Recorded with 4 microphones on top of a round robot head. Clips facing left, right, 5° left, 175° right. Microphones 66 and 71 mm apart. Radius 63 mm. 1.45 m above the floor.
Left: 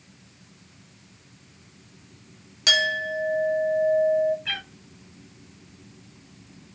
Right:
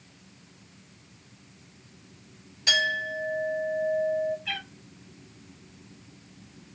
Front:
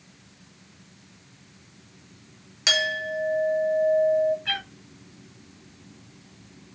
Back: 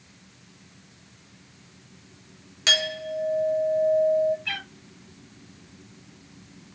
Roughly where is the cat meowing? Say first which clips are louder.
Left 2 dB, front 2 dB; ahead left.